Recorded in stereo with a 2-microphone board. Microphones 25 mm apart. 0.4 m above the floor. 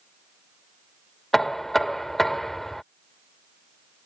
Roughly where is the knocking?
Centre.